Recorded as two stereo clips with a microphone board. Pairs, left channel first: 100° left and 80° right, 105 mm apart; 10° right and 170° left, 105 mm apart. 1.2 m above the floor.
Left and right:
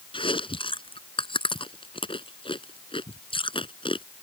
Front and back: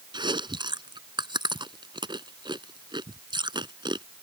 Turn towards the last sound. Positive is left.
turn(degrees=130)